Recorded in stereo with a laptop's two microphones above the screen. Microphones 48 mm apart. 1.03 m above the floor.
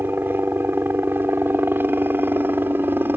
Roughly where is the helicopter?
Right.